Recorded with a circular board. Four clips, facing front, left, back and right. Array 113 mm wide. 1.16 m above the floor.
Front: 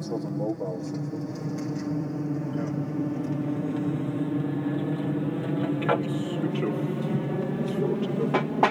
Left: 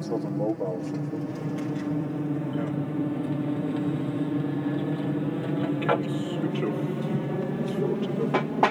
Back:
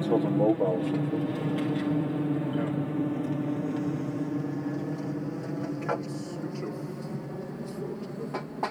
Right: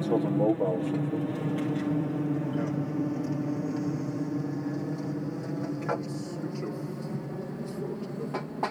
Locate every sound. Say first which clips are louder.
0.0 s an aircraft: right 3 dB, back 6 dB; 155° right; by 8.7 s 45° left